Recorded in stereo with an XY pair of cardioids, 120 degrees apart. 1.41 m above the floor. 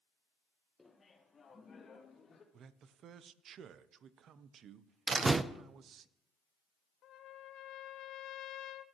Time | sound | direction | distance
0.8 | laughter | 10° left | 1.2 m
2.5 | a man speaking | 55° right | 0.7 m
5.1 | a door slam | 30° right | 0.6 m
7.0 | a trumpet | 65° left | 0.8 m